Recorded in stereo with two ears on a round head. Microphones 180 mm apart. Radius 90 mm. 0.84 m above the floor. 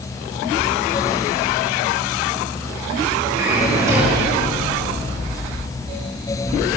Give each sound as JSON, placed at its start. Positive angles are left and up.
{"t": 3.4, "sound": "a drawer", "side_deg": -15, "distance_m": 10.0}